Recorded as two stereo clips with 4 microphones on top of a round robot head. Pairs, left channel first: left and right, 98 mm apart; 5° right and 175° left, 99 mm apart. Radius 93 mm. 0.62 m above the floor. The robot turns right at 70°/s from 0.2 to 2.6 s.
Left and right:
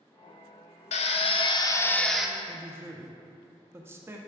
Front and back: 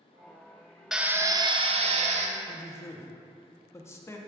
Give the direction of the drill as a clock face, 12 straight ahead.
9 o'clock.